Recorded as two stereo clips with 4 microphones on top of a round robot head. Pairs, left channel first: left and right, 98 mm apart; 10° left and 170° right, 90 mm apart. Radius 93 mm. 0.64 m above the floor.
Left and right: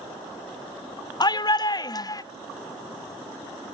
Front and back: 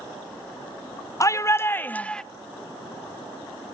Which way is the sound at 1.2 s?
55° left.